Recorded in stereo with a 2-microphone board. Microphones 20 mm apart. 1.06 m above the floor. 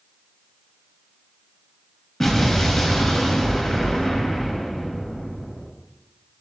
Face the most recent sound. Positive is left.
turn(degrees=15)  # may be behind; listen again after turning